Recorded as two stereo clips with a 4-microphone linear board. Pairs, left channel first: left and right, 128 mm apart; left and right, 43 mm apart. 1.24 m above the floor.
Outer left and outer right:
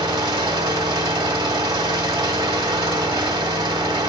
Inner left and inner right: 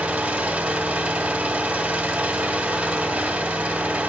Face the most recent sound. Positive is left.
turn(degrees=-35)  # may be behind; listen again after turning